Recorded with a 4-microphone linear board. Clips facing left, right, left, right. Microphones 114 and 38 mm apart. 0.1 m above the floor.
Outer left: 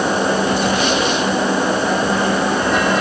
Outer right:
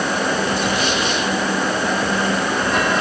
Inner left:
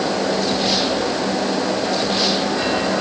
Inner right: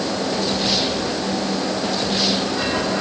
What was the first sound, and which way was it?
Only background noise.